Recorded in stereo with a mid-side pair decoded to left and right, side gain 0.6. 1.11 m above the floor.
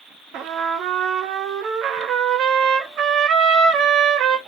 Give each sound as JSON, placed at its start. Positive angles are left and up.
{"t": 0.3, "sound": "a trumpet", "azimuth_deg": -55, "distance_m": 0.8}